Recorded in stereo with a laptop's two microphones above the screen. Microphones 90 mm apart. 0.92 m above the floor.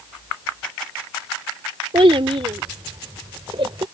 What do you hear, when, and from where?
1.9 s a child speaking: 80° right; by 3.9 s 75° right (ahead or behind)